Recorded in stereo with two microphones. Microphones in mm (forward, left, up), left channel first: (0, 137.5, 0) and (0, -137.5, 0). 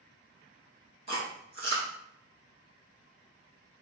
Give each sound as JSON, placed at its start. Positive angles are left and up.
{"t": 1.1, "sound": "chewing", "side_deg": -75, "distance_m": 2.0}